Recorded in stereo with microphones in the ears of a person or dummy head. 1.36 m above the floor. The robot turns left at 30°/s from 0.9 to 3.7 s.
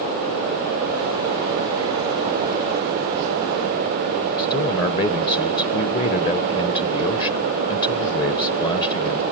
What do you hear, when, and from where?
4.4 s a man speaking: 25° left (ahead or behind), 1.2 m